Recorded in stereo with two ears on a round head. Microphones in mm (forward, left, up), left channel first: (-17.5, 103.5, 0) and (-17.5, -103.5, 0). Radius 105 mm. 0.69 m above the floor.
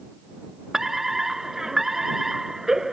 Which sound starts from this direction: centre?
A fire alarm, at 0.7 s.